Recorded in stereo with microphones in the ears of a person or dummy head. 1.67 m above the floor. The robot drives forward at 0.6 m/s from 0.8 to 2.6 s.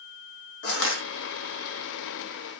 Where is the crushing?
65° left (ahead or behind), 1.0 m; by 1.0 s 60° left (ahead or behind), 1.0 m.